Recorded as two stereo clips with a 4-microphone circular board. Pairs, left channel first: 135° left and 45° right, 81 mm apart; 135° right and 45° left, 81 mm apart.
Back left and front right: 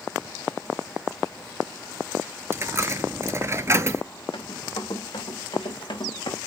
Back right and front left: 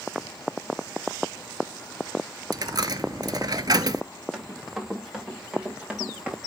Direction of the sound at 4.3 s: 135° left.